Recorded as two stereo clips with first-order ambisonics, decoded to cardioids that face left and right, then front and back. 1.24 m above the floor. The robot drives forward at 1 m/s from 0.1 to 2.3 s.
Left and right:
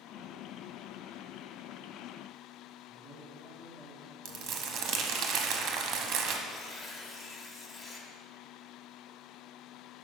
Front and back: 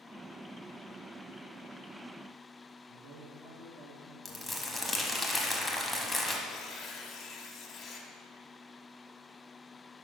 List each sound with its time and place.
2.9 s a man speaking: 175° left, 1.6 m
4.2 s crumpling: 90° right, 0.7 m
6.5 s tearing paper: 45° left, 0.8 m